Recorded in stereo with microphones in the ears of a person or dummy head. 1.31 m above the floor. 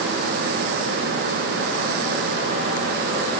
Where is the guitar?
No guitar in this recording.